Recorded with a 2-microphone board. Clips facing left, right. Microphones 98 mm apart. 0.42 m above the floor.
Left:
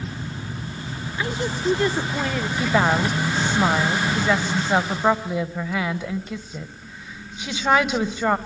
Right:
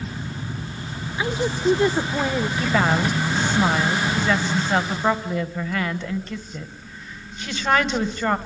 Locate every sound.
1.2 s a woman speaking: 15° right (ahead or behind), 0.8 m
2.6 s a woman speaking: 10° left (ahead or behind), 1.6 m